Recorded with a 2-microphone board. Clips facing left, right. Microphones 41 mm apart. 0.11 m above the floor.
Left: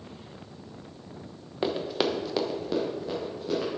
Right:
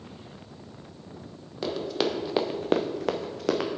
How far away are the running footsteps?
About 1.4 m.